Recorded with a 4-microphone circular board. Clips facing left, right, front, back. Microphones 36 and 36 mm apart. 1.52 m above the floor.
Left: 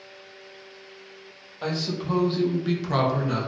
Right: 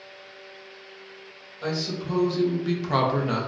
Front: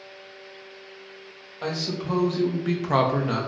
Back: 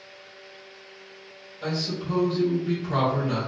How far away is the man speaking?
About 1.1 m.